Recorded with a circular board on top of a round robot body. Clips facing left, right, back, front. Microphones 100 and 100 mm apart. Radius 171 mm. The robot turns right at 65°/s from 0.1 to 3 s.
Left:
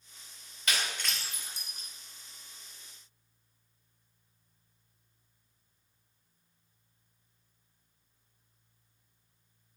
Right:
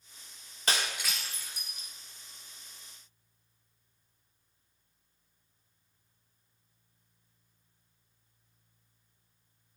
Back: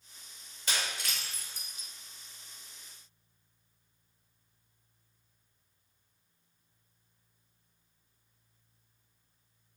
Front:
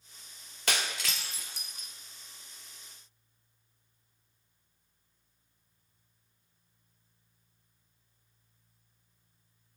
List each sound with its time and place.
0.7 s breaking glass: 30° right, 1.4 m; by 1.9 s 50° left, 1.4 m